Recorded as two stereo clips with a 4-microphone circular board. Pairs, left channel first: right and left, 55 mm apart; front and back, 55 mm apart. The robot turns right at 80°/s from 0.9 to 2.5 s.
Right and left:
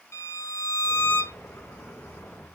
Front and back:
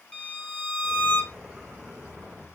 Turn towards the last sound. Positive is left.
turn(degrees=60)